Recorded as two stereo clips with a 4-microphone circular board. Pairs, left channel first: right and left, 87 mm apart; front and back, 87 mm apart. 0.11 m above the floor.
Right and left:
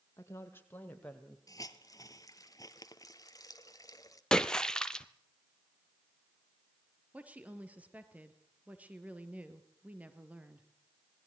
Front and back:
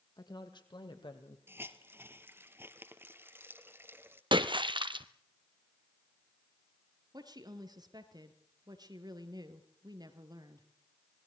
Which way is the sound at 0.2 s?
35° right.